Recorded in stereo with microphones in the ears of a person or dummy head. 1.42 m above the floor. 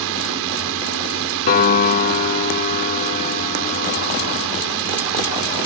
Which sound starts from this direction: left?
A piano, at 1.5 s.